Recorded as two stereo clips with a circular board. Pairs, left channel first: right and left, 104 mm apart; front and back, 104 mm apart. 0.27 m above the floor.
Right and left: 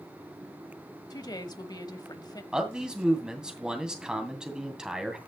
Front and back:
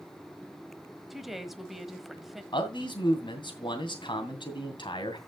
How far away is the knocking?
No knocking in this recording.